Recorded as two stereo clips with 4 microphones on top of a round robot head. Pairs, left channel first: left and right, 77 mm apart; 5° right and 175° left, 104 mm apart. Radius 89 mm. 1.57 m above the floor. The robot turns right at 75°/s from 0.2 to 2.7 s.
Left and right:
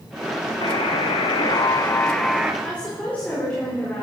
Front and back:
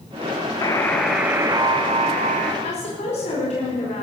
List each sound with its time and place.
0.6 s a buzzer: 50° left, 1.6 m; by 2.5 s 165° right, 1.6 m
2.6 s a woman speaking: 5° left, 4.5 m; by 4.0 s 10° left, 4.5 m